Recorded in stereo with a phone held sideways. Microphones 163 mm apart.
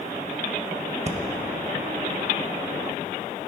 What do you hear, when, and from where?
1.1 s breathing: 45° right (ahead or behind), 0.8 m